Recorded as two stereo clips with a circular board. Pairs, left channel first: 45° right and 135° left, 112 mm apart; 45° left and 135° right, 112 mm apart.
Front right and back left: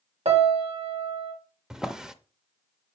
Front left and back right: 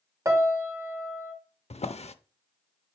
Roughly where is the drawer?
Ahead left.